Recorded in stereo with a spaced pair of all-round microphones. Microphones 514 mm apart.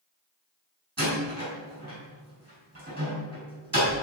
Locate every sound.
1.0 s a door slam: 30° right (ahead or behind), 5 m